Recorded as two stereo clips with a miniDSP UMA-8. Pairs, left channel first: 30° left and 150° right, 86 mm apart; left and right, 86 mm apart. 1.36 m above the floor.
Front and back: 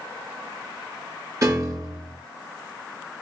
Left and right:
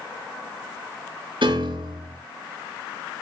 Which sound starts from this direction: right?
A piano, at 1.4 s.